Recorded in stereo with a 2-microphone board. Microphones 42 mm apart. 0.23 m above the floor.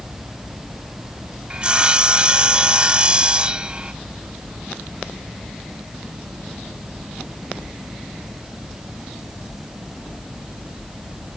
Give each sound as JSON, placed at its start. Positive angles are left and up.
{"t": 1.5, "sound": "sawing", "side_deg": -20, "distance_m": 0.6}